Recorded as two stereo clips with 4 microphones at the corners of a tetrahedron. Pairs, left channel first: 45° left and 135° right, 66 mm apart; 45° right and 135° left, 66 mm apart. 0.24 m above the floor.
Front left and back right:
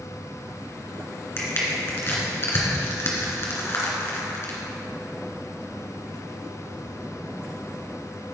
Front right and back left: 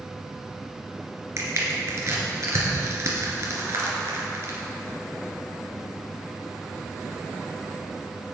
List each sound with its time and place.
1.4 s crushing: 95° left, 2.5 m